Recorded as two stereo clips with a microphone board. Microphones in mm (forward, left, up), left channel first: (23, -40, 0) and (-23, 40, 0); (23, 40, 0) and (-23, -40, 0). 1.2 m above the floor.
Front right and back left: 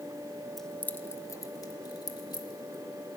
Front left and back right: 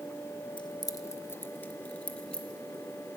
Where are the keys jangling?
30° left, 0.6 m; by 3.2 s 25° right, 2 m.